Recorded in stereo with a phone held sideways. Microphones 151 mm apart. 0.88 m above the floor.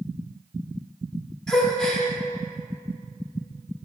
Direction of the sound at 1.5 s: 5° left (ahead or behind).